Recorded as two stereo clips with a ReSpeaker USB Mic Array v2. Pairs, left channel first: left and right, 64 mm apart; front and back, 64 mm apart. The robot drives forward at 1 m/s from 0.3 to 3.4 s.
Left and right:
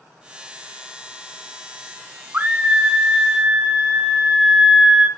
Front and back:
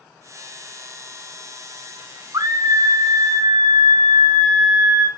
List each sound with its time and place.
2.3 s a scream: 155° right, 1.1 m; by 5.1 s 165° right, 2 m